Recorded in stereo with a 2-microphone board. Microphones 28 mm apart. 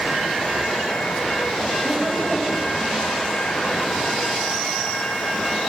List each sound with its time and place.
1.8 s laughter: 15° right (ahead or behind), 4 m